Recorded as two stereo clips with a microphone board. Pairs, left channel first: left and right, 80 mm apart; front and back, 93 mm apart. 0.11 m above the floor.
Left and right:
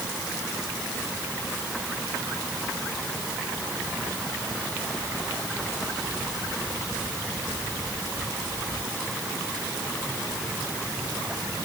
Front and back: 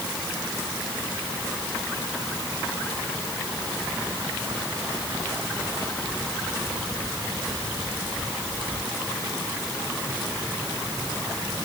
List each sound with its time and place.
Only background noise.